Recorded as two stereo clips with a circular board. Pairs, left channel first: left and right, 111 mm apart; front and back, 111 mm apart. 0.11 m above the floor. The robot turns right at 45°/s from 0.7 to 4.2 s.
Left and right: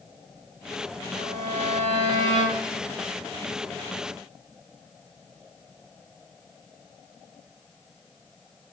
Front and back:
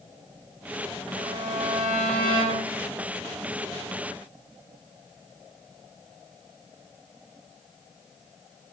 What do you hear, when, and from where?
1.1 s a violin: 130° right, 10 m; by 2.7 s 60° right, 10 m